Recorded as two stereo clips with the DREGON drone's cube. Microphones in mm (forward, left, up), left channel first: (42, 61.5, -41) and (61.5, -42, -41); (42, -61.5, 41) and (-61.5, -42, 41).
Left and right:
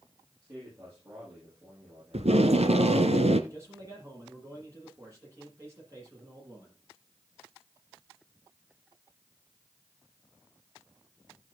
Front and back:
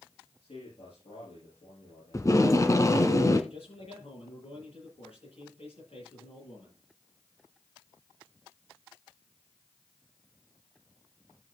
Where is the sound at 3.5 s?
15° right, 9 m.